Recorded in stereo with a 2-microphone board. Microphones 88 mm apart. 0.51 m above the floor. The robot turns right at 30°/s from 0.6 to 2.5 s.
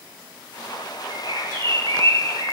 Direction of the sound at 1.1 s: 135° right.